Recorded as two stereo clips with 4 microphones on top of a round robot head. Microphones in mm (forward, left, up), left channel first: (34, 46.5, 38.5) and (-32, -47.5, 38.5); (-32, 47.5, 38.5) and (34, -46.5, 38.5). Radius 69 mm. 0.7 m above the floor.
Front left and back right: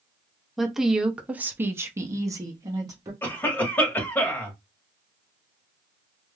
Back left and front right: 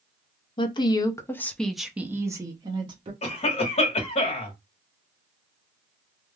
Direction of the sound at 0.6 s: 145° left.